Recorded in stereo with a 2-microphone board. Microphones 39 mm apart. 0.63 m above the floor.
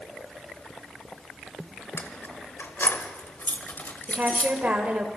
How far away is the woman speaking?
About 3 m.